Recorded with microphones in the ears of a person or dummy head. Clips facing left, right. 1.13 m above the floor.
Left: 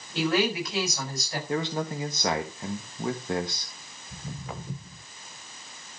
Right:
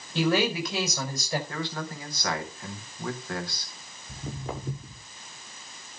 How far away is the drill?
No drill in this recording.